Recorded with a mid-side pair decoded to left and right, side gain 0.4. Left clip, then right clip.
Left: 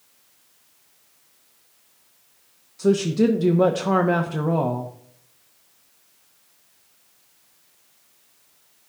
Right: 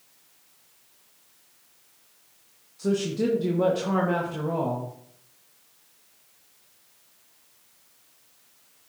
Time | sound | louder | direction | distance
2.8 | a woman speaking | left 6 dB | 55° left | 0.8 m